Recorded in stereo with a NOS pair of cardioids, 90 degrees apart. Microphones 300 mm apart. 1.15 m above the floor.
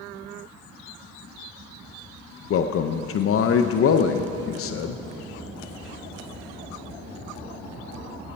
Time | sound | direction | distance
2.5 | a man speaking | 50° left | 0.6 m